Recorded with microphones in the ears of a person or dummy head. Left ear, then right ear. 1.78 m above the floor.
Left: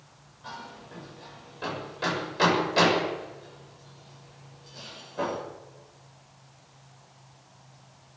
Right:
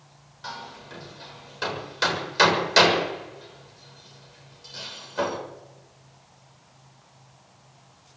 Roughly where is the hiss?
No hiss in this recording.